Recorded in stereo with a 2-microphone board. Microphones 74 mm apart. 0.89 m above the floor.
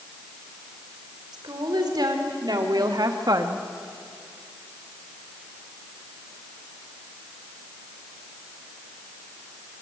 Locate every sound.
1.3 s a woman speaking: 70° right (ahead or behind), 4 m; by 3.6 s 50° right (ahead or behind), 1.3 m